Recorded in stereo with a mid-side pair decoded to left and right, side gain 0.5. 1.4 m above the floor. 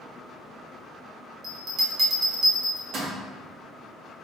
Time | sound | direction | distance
1.4 | a bell | 55° right | 1.0 m